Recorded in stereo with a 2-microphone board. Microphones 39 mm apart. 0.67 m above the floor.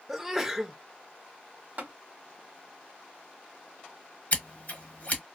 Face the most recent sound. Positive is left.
turn(degrees=45)  # may be behind; listen again after turning